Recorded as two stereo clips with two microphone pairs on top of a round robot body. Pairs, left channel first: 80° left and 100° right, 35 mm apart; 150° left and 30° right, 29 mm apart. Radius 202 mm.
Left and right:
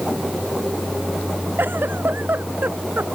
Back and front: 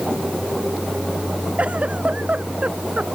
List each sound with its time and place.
1.6 s a giggle: 85° right